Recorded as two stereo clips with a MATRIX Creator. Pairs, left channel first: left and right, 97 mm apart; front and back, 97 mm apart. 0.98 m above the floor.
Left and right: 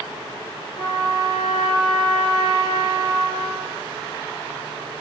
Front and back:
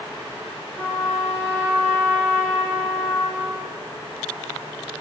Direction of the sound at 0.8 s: 50° left.